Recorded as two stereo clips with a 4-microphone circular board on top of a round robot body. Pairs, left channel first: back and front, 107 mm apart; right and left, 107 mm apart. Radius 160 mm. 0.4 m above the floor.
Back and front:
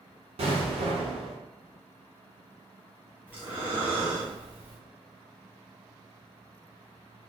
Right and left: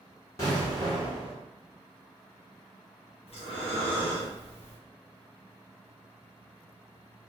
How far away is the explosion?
About 1.1 m.